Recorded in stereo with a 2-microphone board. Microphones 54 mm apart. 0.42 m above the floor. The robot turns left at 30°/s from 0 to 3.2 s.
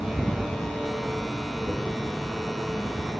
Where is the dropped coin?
45° right (ahead or behind), 2 m.